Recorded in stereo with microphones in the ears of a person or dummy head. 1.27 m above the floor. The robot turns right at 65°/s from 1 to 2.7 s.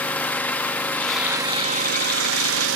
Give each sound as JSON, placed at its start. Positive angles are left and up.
{"t": 0.0, "sound": "an engine running", "azimuth_deg": 175, "distance_m": 1.6}